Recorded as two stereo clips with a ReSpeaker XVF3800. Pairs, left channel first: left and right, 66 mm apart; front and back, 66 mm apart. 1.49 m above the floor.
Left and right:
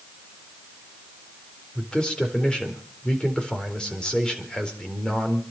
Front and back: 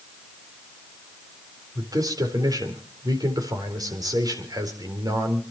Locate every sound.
1.8 s a man speaking: 165° left, 4 m